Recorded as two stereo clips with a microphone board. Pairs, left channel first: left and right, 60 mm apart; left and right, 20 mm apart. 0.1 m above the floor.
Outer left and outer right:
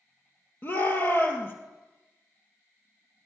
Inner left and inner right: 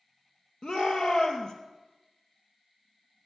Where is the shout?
40° left (ahead or behind), 2.5 m.